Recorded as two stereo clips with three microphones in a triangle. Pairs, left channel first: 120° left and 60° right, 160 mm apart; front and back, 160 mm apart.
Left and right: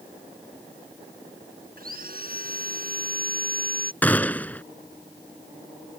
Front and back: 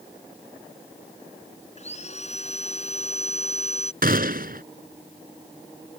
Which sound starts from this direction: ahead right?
Sawing, at 1.8 s.